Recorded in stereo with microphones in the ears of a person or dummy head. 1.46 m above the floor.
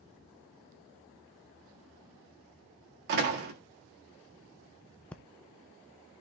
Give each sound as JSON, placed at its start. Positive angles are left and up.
{"t": 3.1, "sound": "a door slam", "side_deg": -50, "distance_m": 1.7}
{"t": 5.1, "sound": "breathing", "side_deg": 10, "distance_m": 0.6}